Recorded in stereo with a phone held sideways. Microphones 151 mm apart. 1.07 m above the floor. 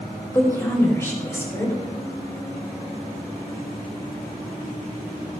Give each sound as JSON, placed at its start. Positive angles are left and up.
{"t": 0.3, "sound": "a woman speaking", "side_deg": 15, "distance_m": 6.0}